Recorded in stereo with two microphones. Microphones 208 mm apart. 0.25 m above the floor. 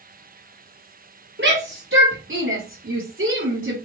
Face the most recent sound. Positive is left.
turn(degrees=-75)  # may be behind; listen again after turning